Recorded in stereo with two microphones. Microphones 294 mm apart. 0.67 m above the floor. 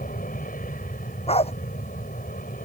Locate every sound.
0.0 s an aircraft: 30° left (ahead or behind)
1.3 s a dog barking: 20° left (ahead or behind)